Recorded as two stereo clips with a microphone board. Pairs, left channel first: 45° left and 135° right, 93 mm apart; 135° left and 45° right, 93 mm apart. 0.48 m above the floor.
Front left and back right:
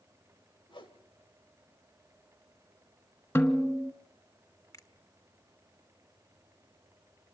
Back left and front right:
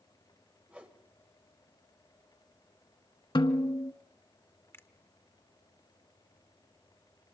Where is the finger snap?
80° left, 0.9 m.